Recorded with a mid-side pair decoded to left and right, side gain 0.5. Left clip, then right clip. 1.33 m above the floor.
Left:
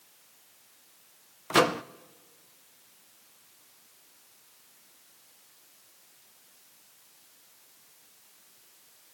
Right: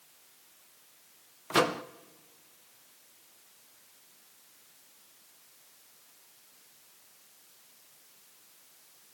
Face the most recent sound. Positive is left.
turn(degrees=20)